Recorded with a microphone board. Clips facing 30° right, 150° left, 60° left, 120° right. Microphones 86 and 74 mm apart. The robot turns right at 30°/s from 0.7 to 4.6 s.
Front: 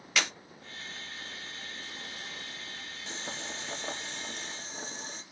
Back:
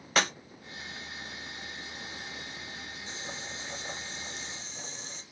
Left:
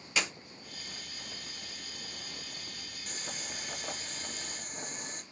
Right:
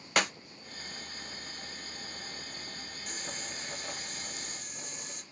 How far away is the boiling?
About 2.5 m.